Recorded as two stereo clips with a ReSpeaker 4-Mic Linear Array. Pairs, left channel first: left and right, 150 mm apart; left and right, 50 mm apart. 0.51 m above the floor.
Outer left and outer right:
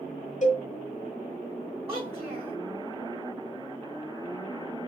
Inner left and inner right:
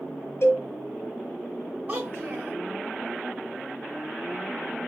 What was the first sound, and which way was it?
A cowbell, 50° left (ahead or behind).